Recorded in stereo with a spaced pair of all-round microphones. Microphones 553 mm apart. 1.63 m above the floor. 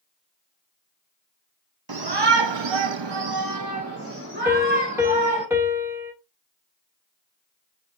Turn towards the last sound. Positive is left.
turn(degrees=-5)  # may be behind; listen again after turning